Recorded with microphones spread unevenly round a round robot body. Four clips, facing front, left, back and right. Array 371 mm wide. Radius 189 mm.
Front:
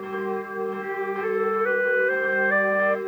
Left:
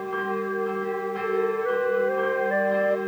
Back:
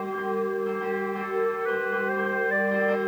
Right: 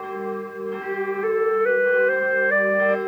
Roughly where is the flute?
Ahead right.